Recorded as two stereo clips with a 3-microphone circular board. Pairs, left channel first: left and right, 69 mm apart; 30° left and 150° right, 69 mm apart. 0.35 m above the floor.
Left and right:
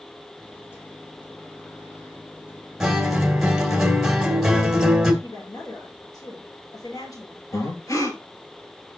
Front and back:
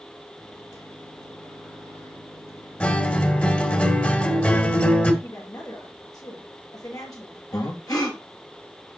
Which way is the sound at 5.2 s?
60° left.